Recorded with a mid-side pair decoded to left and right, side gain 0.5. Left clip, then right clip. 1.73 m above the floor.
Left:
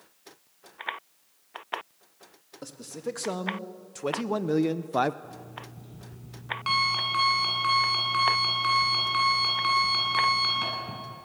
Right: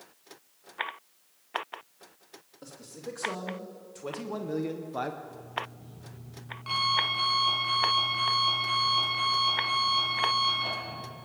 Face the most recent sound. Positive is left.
turn(degrees=65)